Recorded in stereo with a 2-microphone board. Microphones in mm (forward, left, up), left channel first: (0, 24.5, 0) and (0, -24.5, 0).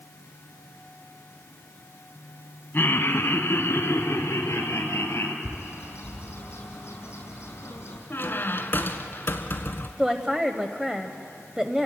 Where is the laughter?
50° left (ahead or behind), 1.5 m; by 5.3 s 65° left (ahead or behind), 4.5 m.